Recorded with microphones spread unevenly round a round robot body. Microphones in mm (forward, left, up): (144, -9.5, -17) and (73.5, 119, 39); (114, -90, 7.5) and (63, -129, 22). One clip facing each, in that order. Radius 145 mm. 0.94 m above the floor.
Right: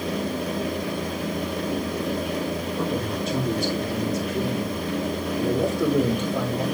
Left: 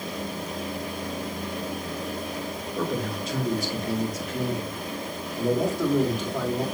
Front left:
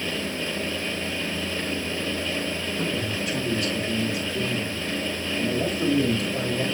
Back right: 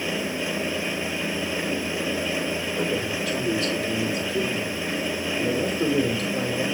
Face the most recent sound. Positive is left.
turn(degrees=125)